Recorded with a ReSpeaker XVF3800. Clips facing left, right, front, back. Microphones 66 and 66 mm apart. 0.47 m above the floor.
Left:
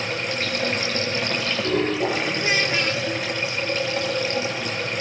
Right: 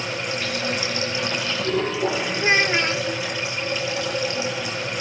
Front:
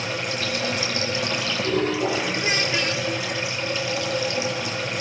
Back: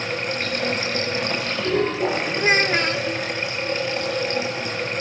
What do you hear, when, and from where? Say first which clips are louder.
0.0 s running water: left 1 dB, back 1 dB; 135° left, 9.5 m
2.4 s a child speaking: right 3 dB, back 5 dB; 140° right, 0.6 m